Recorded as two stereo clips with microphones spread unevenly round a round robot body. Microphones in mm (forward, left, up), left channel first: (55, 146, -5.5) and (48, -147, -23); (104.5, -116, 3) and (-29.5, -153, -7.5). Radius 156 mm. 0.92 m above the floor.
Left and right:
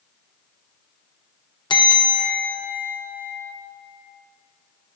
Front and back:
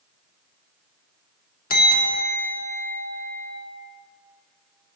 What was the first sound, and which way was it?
A bell, 15° left.